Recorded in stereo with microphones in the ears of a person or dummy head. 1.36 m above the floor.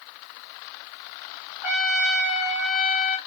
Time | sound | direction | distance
1.6 | a trumpet | 5° right (ahead or behind) | 1.1 m